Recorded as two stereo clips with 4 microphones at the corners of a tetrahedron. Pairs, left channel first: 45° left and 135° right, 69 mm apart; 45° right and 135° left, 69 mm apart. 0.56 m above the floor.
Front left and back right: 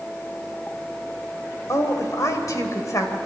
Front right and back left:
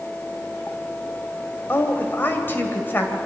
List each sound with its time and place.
1.7 s a woman speaking: 10° left, 2.5 m